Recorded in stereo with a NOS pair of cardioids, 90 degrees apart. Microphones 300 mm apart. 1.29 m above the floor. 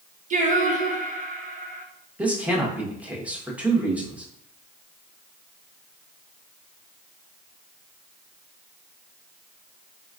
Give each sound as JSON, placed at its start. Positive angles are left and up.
{"t": 0.3, "sound": "singing", "azimuth_deg": -25, "distance_m": 1.0}
{"t": 2.2, "sound": "a man speaking", "azimuth_deg": -5, "distance_m": 1.3}